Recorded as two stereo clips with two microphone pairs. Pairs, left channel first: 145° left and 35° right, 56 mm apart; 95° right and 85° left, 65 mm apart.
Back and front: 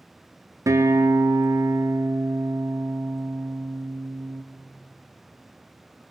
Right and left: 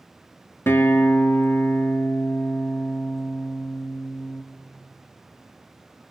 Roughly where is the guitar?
Ahead right.